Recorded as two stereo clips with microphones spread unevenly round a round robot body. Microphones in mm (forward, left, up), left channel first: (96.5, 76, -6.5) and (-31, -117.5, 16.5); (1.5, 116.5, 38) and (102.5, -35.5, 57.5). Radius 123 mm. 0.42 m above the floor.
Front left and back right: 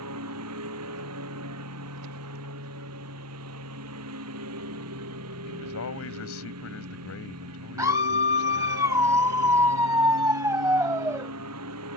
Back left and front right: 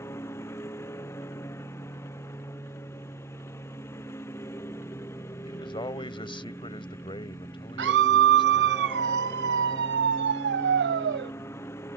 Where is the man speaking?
65° left.